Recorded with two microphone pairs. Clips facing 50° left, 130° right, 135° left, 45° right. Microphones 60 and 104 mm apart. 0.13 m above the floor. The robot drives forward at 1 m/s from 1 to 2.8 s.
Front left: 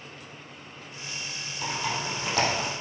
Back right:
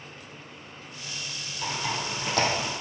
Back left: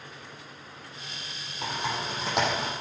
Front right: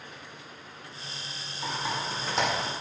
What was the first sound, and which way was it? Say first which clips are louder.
Typing on a keyboard: even, back left 1 dB; 125° left.